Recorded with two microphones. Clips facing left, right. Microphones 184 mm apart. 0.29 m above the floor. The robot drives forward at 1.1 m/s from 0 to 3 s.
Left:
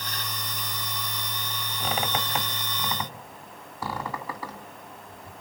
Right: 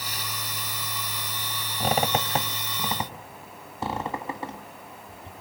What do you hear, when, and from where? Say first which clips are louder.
1.8 s a squeak: right 5 dB; 40° right (ahead or behind), 1.0 m; by 5.3 s 25° right (ahead or behind), 1.7 m